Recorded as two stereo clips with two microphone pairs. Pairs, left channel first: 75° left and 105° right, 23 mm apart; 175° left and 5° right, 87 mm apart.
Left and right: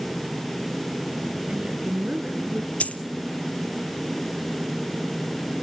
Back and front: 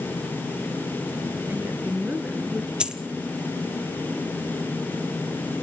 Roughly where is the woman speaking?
Ahead right.